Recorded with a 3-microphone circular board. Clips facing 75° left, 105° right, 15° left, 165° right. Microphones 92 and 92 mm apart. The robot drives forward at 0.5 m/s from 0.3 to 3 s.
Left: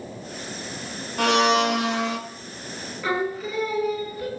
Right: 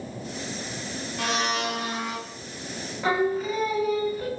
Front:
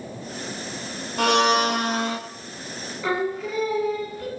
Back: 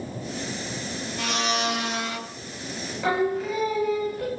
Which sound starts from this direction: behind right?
Singing, at 3.0 s.